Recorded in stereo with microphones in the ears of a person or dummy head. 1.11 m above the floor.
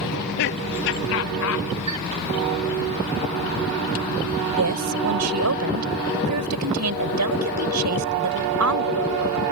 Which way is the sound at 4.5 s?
90° right.